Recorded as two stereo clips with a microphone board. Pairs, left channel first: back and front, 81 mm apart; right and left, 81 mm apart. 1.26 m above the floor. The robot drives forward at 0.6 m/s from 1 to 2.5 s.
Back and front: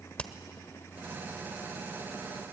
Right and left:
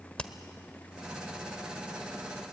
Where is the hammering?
140° right, 1.0 m.